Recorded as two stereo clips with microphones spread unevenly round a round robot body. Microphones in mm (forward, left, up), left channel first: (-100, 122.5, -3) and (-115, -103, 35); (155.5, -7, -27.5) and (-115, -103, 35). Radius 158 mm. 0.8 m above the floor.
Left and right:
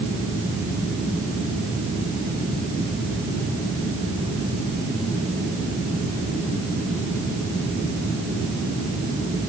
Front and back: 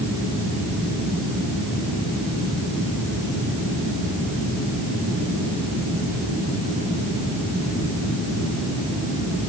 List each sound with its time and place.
Only background noise.